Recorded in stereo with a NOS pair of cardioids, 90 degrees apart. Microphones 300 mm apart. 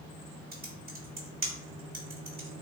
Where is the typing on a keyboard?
35° right, 1.1 m.